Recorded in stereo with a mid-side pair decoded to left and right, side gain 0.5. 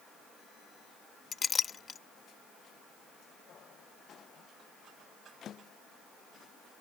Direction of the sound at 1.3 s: 40° left.